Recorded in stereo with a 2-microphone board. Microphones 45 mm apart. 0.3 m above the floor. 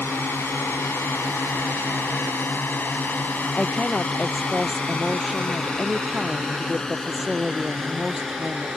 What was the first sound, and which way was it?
A drone, 60° left (ahead or behind).